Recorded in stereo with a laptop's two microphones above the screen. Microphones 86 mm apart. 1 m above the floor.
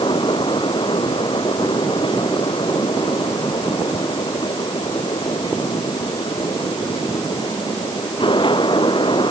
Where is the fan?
70° left (ahead or behind).